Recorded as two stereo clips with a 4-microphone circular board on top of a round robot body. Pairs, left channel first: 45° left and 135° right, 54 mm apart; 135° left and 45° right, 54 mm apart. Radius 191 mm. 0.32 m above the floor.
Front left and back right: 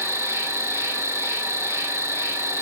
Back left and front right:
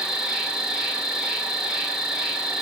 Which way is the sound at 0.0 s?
120° right.